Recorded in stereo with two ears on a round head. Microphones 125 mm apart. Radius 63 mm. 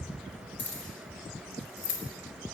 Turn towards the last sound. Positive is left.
turn(degrees=60)  # may be behind; listen again after turning